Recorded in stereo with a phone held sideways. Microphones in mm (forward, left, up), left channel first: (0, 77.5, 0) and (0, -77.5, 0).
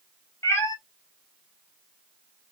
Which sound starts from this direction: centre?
A cat meowing, at 0.4 s.